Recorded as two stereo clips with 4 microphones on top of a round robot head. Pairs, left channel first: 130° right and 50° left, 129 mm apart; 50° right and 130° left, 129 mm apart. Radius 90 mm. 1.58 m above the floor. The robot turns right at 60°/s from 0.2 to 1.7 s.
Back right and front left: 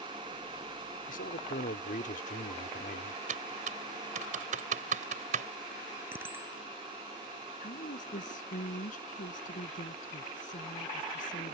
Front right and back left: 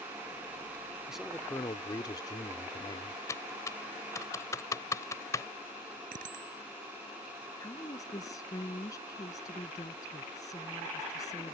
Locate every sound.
1.1 s a man speaking: 145° right; by 3.2 s 110° right
3.3 s typing on a keyboard: 20° left
6.1 s a bicycle bell: 120° left
7.6 s a woman speaking: 110° right